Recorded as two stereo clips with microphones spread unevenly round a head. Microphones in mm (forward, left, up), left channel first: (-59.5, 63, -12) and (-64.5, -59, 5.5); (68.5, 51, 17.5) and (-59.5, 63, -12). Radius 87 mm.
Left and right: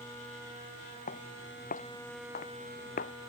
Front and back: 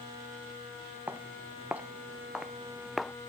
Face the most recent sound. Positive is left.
turn(degrees=80)